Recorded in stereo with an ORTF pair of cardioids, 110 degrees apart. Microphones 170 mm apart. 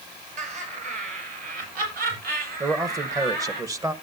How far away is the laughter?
About 7 m.